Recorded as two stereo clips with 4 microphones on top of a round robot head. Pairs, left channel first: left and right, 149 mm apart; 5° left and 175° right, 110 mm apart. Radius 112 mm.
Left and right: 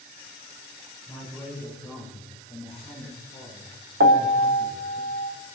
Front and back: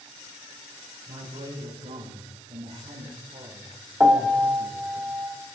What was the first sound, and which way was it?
A man speaking, 160° left.